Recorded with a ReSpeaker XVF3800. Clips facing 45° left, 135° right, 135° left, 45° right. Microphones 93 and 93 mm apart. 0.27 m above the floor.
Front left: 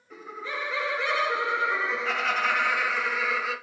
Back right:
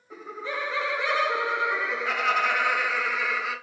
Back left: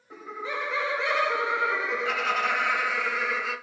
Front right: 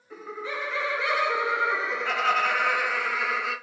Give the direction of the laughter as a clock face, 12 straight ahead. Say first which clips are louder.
Back right 2 dB, even; 6 o'clock.